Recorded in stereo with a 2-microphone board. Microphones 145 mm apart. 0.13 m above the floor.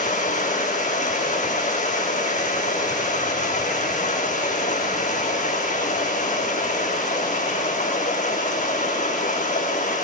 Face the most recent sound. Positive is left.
turn(degrees=55)  # may be behind; listen again after turning